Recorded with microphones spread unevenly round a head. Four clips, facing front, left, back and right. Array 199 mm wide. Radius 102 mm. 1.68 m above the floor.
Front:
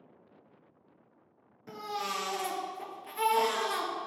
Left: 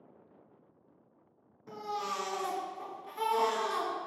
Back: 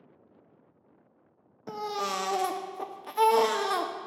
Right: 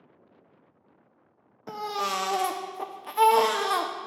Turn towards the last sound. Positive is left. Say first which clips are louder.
# right 6 dB, back 4 dB
turn(degrees=-140)